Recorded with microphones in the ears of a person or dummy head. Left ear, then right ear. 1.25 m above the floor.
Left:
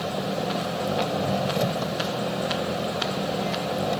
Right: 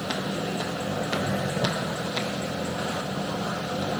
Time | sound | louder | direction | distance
0.0 | an engine running | left 2 dB | 85° left | ?